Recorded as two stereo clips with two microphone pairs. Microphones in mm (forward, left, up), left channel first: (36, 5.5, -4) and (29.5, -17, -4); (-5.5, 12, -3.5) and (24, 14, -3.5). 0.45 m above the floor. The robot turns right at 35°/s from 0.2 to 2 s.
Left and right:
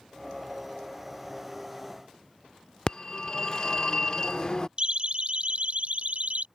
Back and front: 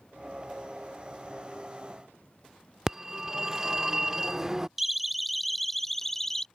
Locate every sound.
2.9 s a phone ringing: 60° left
4.8 s a siren: 75° right; by 6.5 s 100° right